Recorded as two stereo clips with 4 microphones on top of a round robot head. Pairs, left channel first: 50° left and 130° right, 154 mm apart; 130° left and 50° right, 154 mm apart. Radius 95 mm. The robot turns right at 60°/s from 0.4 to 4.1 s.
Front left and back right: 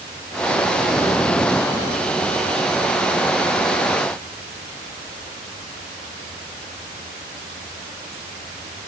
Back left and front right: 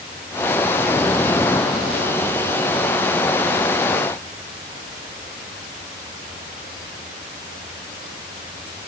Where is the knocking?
No knocking in this recording.